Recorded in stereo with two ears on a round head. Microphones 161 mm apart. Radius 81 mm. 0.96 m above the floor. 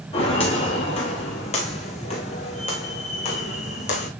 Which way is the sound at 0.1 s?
35° left (ahead or behind).